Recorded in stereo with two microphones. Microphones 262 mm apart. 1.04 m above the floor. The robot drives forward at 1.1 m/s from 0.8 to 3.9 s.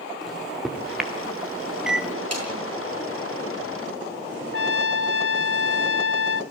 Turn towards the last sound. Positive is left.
turn(degrees=55)  # may be behind; listen again after turning